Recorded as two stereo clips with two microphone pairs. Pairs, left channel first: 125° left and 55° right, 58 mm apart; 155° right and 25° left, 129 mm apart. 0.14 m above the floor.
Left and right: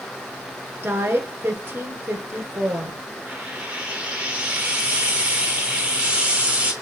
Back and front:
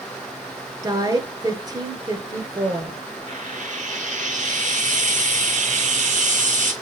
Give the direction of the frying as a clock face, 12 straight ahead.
12 o'clock.